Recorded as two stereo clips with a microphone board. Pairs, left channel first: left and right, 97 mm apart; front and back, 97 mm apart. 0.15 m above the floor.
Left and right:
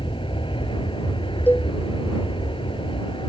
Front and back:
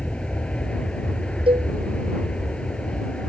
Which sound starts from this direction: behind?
A cowbell, at 1.5 s.